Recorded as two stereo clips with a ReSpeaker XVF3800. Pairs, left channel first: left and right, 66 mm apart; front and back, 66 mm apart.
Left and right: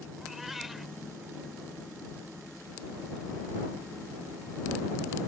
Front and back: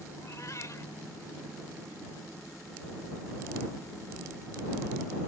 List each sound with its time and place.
0.2 s a cat meowing: 5° right